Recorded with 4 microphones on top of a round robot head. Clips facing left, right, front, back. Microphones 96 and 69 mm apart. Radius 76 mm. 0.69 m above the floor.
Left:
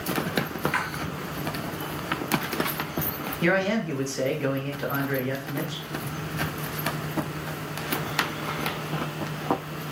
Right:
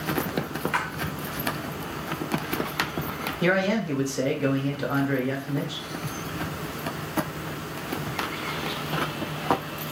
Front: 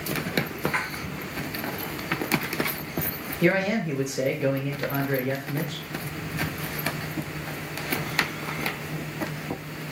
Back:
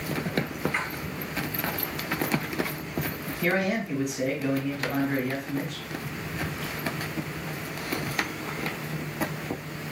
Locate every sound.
0.7 s a splash: 35° right, 1.5 m
3.4 s a man speaking: 15° right, 2 m